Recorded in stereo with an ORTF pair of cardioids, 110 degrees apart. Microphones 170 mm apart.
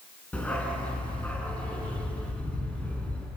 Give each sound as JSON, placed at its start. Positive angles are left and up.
{"t": 0.3, "sound": "a dog barking", "azimuth_deg": 10, "distance_m": 5.0}